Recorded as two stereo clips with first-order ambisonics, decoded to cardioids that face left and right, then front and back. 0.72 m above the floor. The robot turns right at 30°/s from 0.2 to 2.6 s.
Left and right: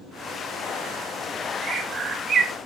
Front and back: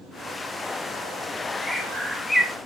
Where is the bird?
100° right, 0.8 m; by 2.5 s 70° right, 0.8 m.